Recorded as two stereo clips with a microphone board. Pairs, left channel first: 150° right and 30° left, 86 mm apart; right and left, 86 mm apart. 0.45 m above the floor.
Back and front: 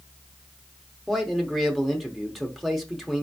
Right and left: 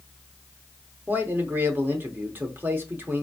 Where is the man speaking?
120° left, 0.9 m.